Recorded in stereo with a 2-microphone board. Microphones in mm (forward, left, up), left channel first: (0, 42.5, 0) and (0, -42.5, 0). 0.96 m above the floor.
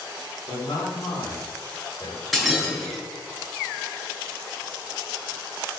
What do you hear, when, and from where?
0.5 s a man speaking: 70° left (ahead or behind), 3.5 m; by 2.2 s 80° left, 5 m
2.3 s breaking glass: 5° left (ahead or behind), 6.5 m